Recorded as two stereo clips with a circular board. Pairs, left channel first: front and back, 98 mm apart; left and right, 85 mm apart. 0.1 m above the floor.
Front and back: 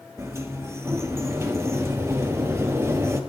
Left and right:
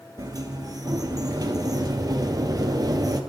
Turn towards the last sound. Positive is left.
turn(degrees=-120)